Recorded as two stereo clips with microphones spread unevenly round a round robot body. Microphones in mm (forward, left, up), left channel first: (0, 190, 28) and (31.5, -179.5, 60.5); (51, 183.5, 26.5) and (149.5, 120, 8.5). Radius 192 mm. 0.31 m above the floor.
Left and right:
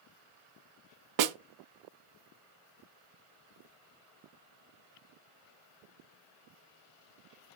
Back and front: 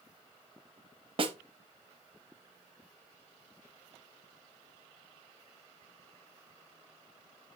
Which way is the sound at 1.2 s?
55° right.